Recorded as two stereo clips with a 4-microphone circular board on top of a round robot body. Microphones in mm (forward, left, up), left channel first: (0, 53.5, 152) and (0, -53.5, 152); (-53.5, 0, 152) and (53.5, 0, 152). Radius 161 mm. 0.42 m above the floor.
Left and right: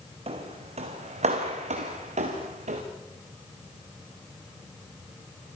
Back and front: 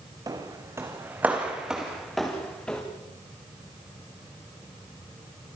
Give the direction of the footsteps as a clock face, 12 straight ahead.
2 o'clock.